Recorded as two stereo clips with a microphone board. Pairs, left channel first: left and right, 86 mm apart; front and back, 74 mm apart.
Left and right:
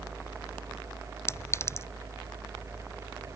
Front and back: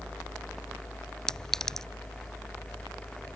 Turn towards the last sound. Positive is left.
turn(degrees=75)